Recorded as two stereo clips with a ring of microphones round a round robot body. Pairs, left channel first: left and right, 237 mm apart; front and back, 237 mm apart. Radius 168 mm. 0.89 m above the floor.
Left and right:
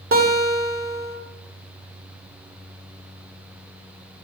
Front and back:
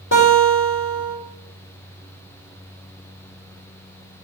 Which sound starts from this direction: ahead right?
A guitar, at 0.1 s.